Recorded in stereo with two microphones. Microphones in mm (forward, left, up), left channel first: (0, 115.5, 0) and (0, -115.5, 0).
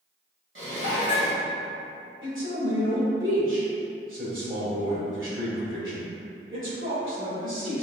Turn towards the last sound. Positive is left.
turn(degrees=-60)  # may be behind; listen again after turning